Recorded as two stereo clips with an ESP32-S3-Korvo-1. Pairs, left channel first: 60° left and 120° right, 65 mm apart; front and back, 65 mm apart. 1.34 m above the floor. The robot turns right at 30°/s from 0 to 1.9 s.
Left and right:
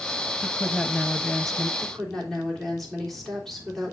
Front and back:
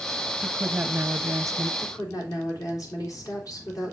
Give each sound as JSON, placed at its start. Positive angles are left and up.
{"t": 0.4, "sound": "a woman speaking", "azimuth_deg": 115, "distance_m": 0.7}
{"t": 1.8, "sound": "a woman speaking", "azimuth_deg": -30, "distance_m": 3.5}